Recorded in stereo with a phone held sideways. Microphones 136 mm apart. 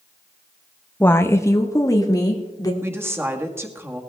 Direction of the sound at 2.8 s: 15° right (ahead or behind).